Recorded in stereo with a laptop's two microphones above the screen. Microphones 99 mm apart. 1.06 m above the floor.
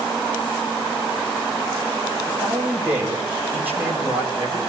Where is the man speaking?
15° right (ahead or behind), 6.5 m.